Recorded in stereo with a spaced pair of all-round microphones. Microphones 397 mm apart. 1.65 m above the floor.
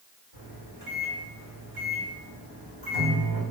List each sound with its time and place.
0.3 s a microwave: 65° right (ahead or behind), 1.5 m